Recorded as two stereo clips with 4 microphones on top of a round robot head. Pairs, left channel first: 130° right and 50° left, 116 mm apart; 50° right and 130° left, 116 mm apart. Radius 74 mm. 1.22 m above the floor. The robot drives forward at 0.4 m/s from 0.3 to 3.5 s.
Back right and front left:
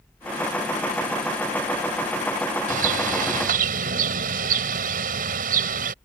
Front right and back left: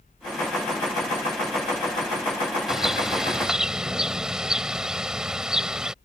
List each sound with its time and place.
2.7 s a bird: 45° left